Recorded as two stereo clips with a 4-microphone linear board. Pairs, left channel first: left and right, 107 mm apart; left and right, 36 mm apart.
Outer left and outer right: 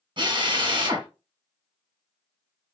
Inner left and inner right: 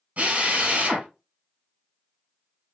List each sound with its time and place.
0.2 s a drill: 50° right (ahead or behind), 1.8 m